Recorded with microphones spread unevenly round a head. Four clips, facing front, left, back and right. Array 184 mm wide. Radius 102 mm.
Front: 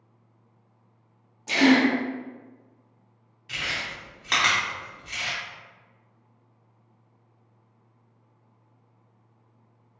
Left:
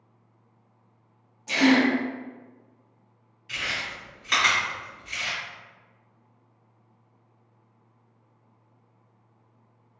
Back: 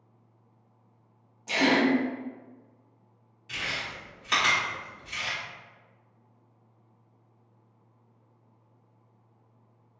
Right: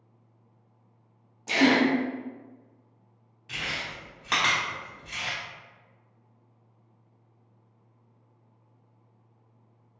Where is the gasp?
60° right, 0.7 m.